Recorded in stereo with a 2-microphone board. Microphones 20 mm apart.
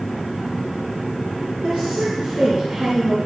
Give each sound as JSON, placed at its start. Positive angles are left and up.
{"t": 1.6, "sound": "a woman speaking", "side_deg": -65, "distance_m": 6.0}